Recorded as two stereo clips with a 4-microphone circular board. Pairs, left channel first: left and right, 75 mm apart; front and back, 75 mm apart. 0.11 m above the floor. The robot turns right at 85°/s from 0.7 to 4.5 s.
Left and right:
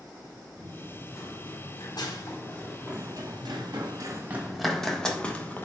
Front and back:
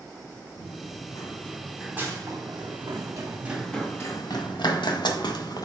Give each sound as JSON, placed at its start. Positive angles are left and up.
{"t": 0.6, "sound": "running footsteps", "azimuth_deg": 0, "distance_m": 4.5}